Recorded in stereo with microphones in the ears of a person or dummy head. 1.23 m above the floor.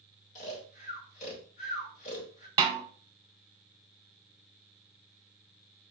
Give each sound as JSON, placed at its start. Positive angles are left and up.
{"t": 0.3, "sound": "snoring", "side_deg": 40, "distance_m": 0.9}
{"t": 2.6, "sound": "a snare drum", "side_deg": -25, "distance_m": 0.6}